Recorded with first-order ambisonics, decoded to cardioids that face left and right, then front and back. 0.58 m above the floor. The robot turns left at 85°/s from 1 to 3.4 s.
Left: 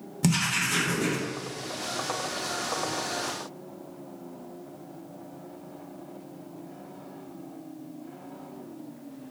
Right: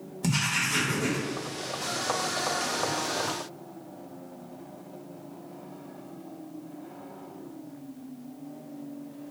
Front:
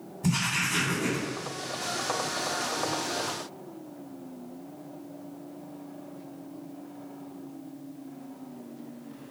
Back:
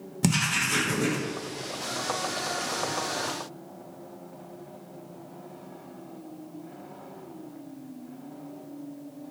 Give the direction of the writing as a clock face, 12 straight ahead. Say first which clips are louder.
Left 1 dB, back 2 dB; 7 o'clock.